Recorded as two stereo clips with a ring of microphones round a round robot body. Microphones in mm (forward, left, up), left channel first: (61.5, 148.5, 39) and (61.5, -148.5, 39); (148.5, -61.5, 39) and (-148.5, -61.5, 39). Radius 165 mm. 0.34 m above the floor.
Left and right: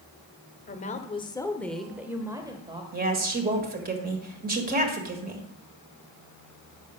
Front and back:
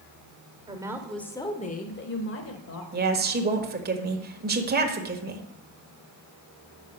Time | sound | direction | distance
0.7 | a woman speaking | 120° left | 1.1 m
2.9 | a woman speaking | 135° right | 1.6 m